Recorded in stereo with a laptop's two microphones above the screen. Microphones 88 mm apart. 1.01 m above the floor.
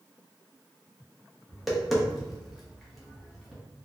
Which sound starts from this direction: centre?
Tapping, at 1.5 s.